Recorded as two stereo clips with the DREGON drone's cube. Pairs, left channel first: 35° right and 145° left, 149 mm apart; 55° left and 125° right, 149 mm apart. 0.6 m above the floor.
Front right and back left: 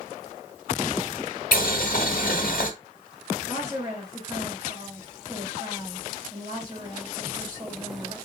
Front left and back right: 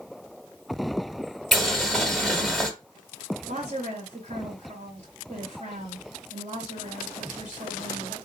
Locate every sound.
1.5 s boiling: 35° right, 0.9 m
3.5 s a woman speaking: 145° right, 3 m